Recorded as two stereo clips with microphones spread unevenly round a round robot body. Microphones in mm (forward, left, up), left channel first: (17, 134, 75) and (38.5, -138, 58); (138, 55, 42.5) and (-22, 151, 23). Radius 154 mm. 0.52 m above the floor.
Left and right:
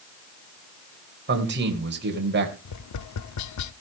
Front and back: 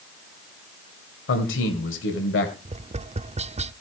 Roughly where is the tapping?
Left.